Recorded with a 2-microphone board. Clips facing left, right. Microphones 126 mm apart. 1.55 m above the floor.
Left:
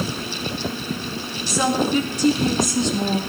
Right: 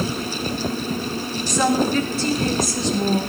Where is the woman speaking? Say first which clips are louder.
Right 1 dB; 10° left (ahead or behind), 4 m; by 3.2 s 35° left (ahead or behind), 2.5 m.